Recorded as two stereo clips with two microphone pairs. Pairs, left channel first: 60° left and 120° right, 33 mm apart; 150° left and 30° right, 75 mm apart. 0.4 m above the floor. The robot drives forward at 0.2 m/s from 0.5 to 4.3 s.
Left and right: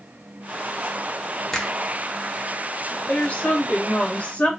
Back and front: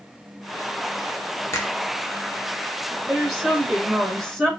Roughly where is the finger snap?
Behind left.